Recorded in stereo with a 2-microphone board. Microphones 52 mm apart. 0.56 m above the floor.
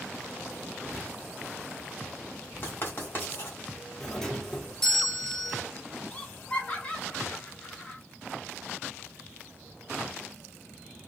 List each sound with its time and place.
2.6 s writing: 45° left (ahead or behind), 1.8 m
4.0 s a doorbell: 10° left (ahead or behind), 1.0 m
6.1 s laughter: 25° left (ahead or behind), 1.2 m